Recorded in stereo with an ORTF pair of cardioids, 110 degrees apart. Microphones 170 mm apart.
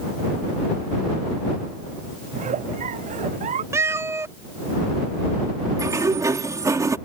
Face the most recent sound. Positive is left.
turn(degrees=-20)